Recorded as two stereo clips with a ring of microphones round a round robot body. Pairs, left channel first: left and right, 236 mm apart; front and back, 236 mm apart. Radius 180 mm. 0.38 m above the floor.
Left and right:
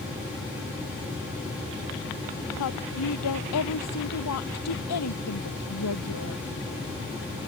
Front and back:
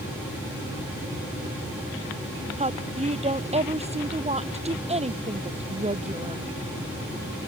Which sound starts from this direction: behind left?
A woman speaking, at 2.6 s.